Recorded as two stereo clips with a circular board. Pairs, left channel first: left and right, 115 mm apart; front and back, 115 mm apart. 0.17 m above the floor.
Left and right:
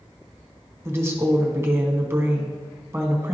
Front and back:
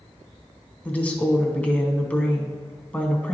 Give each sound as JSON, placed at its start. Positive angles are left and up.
{"t": 0.8, "sound": "a woman speaking", "azimuth_deg": -60, "distance_m": 1.3}